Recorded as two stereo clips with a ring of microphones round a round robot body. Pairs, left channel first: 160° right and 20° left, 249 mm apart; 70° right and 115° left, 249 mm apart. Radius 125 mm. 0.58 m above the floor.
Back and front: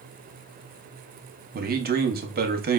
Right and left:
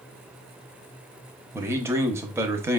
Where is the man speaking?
40° left, 0.7 m.